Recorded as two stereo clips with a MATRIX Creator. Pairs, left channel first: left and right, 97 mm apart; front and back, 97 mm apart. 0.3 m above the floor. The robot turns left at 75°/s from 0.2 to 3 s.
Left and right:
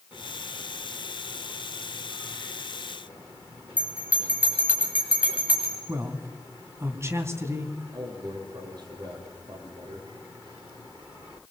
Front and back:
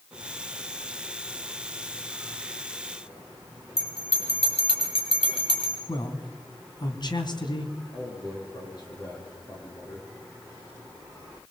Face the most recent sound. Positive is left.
turn(degrees=-45)